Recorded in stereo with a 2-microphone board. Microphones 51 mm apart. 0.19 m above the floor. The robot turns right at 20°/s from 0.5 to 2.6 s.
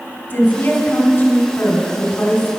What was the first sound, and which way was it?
A woman speaking, 90° left.